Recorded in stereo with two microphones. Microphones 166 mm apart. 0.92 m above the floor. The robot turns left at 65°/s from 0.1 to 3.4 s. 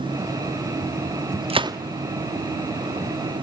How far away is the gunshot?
About 0.8 m.